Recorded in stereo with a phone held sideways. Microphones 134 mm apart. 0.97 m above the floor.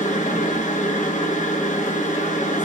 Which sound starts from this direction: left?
A machine running, at 0.0 s.